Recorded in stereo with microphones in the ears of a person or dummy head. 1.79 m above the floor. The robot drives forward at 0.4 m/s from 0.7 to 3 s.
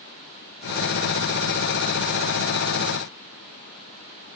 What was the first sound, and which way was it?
Only background noise.